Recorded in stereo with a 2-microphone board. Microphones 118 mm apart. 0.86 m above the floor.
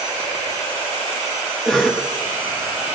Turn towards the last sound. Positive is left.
turn(degrees=5)  # may be behind; listen again after turning